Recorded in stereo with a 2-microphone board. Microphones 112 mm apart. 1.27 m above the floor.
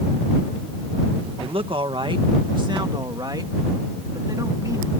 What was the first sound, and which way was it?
A man speaking, 55° right (ahead or behind).